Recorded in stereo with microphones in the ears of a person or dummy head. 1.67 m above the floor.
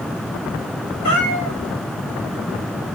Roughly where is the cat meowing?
Left.